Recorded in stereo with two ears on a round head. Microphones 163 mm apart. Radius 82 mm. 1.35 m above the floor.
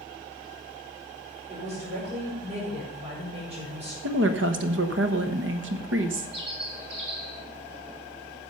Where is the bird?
30° right (ahead or behind), 2.5 m.